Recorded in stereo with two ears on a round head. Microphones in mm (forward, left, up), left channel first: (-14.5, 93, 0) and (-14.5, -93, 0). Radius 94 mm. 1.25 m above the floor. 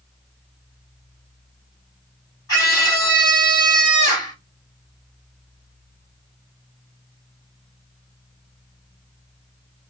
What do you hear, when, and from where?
2.5 s a scream: 20° left (ahead or behind), 4 m